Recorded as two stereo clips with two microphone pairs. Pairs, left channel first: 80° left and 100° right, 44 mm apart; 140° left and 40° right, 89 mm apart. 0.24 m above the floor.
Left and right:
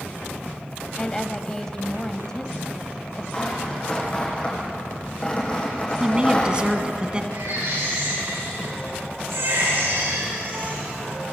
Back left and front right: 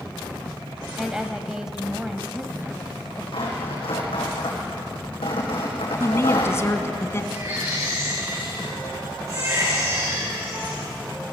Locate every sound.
1.0 s a woman speaking: 30° left, 1.1 m
3.3 s tearing paper: 145° left, 7.5 m
6.0 s a woman speaking: 165° right, 1.9 m
7.3 s a baby crying: 95° right, 10 m